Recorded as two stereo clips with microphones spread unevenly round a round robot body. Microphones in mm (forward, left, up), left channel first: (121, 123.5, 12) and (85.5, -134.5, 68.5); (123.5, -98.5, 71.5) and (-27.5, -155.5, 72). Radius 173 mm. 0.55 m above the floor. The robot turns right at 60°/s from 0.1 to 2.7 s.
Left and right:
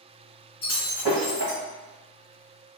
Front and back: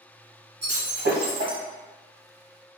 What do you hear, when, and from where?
0.6 s breaking glass: 170° left, 1.3 m; by 1.6 s 130° right, 1.3 m